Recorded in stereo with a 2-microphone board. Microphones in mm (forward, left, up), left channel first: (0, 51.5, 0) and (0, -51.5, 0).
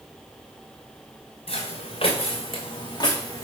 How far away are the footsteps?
About 1.1 m.